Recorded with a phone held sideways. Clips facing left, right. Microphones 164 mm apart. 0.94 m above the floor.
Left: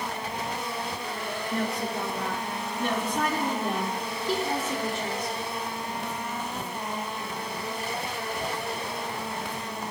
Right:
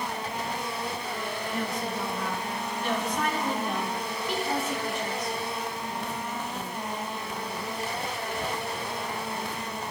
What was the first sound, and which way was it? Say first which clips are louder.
A woman speaking: left 3 dB; 65° left (ahead or behind).